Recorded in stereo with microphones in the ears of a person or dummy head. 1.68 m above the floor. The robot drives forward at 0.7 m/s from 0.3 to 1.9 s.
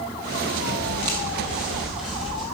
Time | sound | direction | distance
0.8 | footsteps | 15° right (ahead or behind) | 2.5 m